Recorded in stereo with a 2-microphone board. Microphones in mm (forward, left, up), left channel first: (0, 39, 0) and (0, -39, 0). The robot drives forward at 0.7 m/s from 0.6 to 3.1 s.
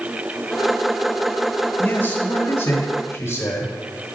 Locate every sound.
1.8 s a man speaking: 25° left (ahead or behind), 1.5 m; by 3.7 s 30° left (ahead or behind), 1.2 m